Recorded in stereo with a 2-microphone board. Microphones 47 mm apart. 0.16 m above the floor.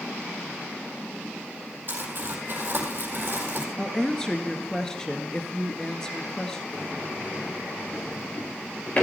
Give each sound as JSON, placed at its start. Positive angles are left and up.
{"t": 1.9, "sound": "crumpling", "side_deg": -45, "distance_m": 4.5}
{"t": 3.8, "sound": "a woman speaking", "side_deg": 15, "distance_m": 2.0}
{"t": 6.7, "sound": "a sliding door", "side_deg": 30, "distance_m": 5.0}